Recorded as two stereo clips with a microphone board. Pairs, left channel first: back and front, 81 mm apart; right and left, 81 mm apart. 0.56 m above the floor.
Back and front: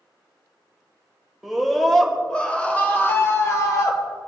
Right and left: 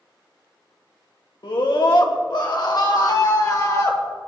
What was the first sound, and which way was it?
A scream, 90° right.